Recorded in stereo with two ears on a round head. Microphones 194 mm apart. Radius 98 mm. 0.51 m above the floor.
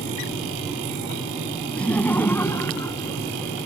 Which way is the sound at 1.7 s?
5° left (ahead or behind).